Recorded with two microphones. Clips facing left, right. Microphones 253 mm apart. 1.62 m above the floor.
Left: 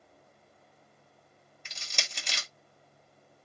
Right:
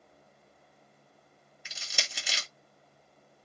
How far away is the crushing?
About 0.8 m.